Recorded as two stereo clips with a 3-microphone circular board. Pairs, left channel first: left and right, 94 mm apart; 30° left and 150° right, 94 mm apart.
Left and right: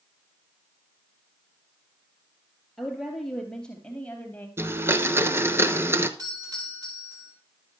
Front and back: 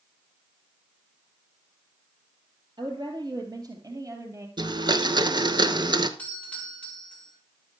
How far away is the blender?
About 1.0 m.